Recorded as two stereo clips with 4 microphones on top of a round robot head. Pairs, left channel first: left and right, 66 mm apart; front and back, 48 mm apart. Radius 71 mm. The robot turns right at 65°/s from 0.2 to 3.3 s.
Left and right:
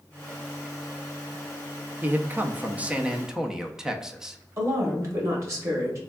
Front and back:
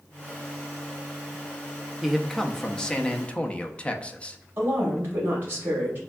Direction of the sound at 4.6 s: 130° right.